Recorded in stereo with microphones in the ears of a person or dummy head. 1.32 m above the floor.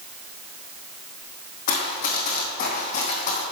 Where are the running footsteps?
55° left (ahead or behind), 3 m; by 3.4 s 40° left (ahead or behind), 3 m.